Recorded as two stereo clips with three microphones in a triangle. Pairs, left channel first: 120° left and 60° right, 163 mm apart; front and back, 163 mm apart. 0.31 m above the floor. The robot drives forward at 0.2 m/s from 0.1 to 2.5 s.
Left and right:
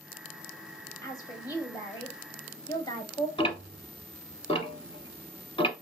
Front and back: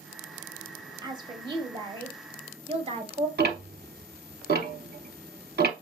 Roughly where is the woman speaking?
Behind left.